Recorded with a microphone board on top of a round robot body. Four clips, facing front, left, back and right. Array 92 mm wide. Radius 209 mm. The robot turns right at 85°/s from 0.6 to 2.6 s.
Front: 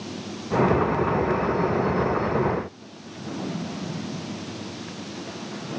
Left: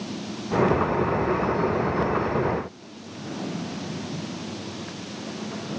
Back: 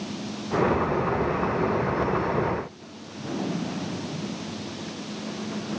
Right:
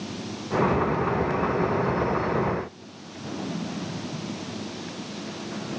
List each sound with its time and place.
Only background noise.